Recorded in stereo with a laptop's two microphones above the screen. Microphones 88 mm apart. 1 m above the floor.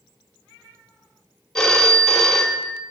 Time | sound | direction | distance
1.6 | a phone ringing | 5° left (ahead or behind) | 1.3 m